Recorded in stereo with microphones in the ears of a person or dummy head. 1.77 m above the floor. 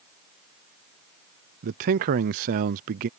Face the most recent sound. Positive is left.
turn(degrees=-45)  # may be behind; listen again after turning